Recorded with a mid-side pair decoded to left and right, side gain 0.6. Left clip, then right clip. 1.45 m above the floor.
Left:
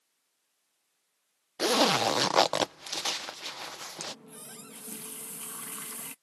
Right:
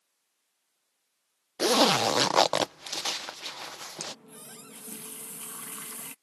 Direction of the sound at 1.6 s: 15° right.